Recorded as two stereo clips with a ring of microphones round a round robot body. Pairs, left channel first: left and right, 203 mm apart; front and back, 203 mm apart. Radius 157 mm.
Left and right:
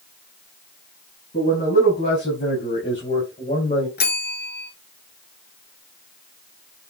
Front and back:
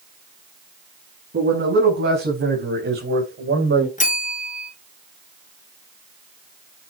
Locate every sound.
1.3 s a man speaking: 150° left, 5.5 m; by 3.9 s 155° left, 3 m
4.0 s a bell: 55° left, 2.5 m